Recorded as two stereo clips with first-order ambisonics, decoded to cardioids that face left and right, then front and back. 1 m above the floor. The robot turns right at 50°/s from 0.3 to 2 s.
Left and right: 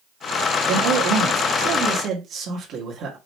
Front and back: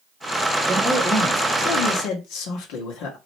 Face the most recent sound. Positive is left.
turn(degrees=-35)